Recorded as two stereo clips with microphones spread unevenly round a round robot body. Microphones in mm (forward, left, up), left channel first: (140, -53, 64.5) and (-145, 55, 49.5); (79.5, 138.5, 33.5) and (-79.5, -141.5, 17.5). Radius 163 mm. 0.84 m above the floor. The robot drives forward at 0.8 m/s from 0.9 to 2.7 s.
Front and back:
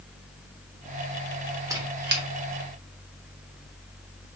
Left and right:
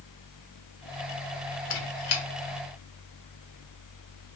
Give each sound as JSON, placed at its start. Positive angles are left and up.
{"t": 1.7, "sound": "a squeak", "azimuth_deg": 80, "distance_m": 0.8}